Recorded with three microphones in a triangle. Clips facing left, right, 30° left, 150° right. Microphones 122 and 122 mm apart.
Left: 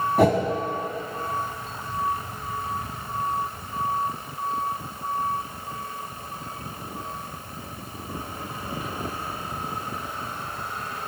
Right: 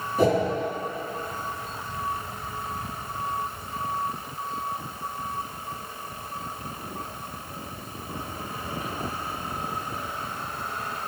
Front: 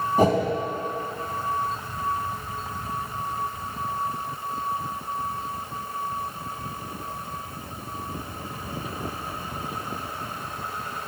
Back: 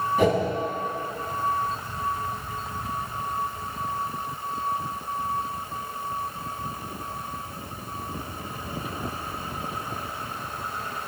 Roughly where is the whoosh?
Left.